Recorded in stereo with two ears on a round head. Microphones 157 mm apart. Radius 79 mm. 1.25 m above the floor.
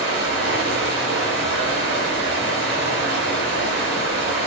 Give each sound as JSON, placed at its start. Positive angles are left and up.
{"t": 0.0, "sound": "running water", "side_deg": -65, "distance_m": 6.0}